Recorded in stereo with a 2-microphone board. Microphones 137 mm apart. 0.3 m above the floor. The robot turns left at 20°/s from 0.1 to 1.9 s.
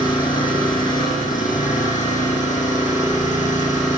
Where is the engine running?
100° left, 9.5 m; by 4.0 s 65° left, 9.5 m.